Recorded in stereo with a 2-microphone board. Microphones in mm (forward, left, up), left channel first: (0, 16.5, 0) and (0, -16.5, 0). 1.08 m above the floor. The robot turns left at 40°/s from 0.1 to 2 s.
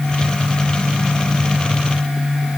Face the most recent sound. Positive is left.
No sound to turn to.